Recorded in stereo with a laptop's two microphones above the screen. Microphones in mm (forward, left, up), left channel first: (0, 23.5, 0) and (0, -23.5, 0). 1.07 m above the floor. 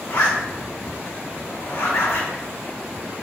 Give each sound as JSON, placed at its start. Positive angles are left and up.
{"t": 0.1, "sound": "a zipper", "side_deg": 75, "distance_m": 2.0}